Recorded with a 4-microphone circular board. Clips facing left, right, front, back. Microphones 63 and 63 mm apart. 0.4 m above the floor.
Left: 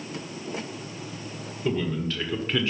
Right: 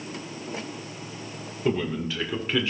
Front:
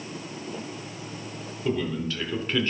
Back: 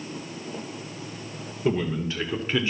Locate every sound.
1.6 s a man speaking: 145° right, 1.5 m; by 2.7 s 175° right, 1.3 m